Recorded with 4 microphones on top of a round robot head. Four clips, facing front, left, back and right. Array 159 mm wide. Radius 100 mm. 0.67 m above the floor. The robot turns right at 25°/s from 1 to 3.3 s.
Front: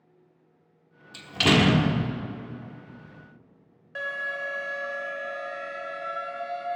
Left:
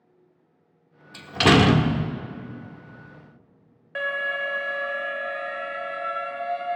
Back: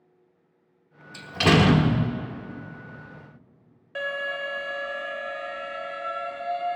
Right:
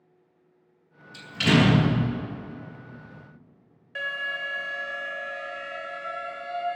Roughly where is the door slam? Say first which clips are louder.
Left 4 dB, back 2 dB; left.